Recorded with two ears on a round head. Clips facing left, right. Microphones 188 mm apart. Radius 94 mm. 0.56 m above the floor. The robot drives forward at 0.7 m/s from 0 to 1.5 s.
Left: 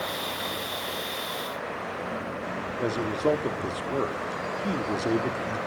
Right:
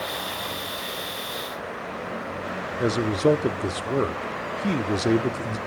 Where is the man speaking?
30° right (ahead or behind), 0.7 m.